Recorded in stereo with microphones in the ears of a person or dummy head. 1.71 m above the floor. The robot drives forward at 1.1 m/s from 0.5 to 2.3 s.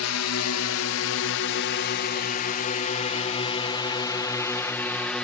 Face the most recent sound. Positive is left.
turn(degrees=5)  # may be behind; listen again after turning